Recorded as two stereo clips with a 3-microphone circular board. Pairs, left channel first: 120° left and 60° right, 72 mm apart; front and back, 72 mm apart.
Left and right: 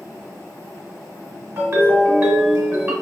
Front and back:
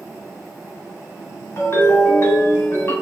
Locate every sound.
1.6 s a ringtone: 30° right, 1.1 m